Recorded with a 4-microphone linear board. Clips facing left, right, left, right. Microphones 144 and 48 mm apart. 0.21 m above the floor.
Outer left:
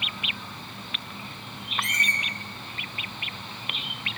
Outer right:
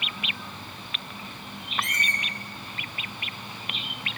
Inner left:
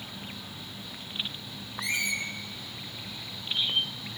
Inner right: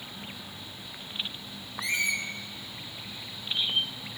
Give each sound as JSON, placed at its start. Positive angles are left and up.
{"t": 1.8, "sound": "a squeak", "side_deg": 0, "distance_m": 0.7}